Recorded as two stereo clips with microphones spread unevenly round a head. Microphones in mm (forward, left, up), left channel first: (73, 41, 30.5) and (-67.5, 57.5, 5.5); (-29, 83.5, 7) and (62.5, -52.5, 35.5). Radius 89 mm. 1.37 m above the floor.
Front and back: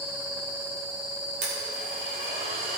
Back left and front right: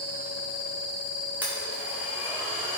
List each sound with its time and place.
1.4 s a blender: 140° right, 2 m